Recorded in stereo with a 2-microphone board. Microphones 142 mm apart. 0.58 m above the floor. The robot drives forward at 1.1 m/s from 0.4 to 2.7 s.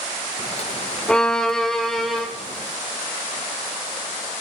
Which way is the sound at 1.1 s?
5° left (ahead or behind).